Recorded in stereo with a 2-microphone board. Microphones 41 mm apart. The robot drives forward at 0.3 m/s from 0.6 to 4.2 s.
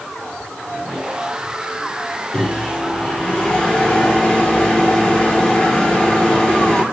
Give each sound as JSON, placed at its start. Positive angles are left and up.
{"t": 2.3, "sound": "a microwave", "side_deg": 25, "distance_m": 1.8}